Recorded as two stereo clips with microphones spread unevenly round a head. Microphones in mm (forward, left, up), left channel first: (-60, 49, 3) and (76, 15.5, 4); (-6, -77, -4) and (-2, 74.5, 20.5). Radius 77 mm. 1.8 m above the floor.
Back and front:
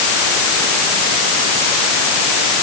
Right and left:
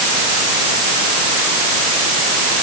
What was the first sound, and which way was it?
Only background noise.